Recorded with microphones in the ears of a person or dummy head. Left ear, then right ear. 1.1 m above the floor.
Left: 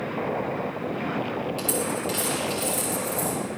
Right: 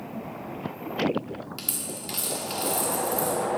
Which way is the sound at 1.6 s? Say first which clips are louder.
Left 8 dB; 5° right (ahead or behind).